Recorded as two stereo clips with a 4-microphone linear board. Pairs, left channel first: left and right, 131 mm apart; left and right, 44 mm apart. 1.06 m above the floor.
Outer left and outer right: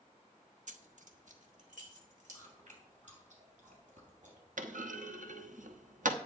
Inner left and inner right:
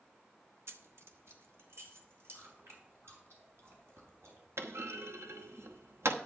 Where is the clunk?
80° right, 0.9 m.